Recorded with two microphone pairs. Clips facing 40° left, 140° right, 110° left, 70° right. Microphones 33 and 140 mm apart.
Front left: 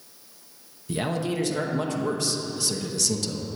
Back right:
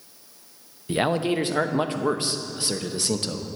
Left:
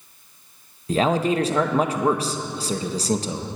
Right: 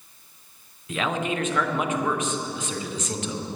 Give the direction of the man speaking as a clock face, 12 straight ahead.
7 o'clock.